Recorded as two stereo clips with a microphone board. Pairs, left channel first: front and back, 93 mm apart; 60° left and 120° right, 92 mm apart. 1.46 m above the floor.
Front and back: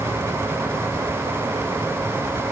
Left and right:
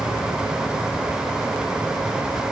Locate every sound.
Only background noise.